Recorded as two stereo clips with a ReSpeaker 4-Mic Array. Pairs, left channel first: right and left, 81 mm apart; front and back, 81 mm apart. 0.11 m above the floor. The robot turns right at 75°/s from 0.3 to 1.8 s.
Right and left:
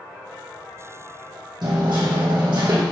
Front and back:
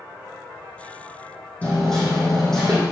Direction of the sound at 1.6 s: 70° left.